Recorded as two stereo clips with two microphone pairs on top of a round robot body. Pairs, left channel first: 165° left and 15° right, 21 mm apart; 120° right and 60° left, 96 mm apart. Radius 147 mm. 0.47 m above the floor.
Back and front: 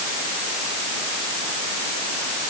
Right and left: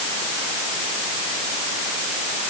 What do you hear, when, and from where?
Only background noise.